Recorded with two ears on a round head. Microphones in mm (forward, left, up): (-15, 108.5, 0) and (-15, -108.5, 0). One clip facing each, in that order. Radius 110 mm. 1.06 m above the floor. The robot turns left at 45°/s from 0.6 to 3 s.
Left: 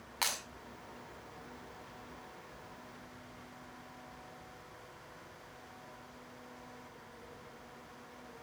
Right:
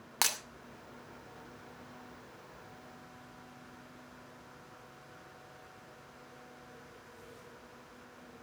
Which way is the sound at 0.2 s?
65° right (ahead or behind).